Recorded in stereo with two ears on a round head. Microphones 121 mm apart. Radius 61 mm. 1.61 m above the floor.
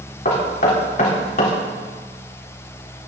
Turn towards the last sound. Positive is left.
turn(degrees=60)  # may be behind; listen again after turning